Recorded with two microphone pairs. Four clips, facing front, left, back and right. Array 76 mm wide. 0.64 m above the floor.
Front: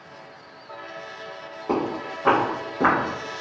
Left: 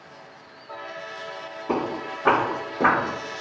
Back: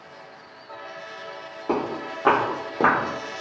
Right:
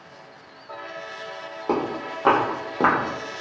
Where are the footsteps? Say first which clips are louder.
Right 1 dB, front 1 dB; 100° right, 1.5 m; by 3.0 s 130° right, 1.1 m.